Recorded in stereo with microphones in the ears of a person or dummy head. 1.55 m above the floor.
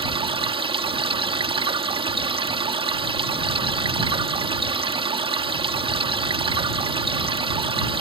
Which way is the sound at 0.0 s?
25° right (ahead or behind).